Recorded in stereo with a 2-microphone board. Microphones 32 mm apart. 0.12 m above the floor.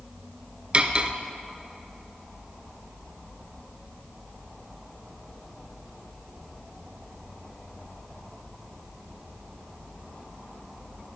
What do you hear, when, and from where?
0.7 s cutlery clinking: 35° right (ahead or behind), 1.0 m